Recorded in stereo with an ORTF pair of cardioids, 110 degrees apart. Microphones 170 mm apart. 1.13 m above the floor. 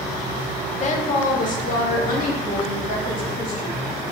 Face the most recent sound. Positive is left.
turn(degrees=60)